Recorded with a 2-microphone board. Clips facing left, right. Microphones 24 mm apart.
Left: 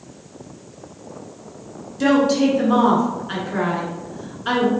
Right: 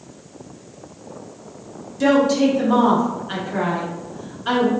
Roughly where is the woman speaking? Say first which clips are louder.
Even; centre.